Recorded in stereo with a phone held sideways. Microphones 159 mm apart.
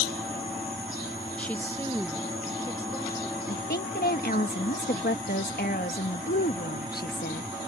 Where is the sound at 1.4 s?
5° left (ahead or behind); by 3.4 s 20° left (ahead or behind).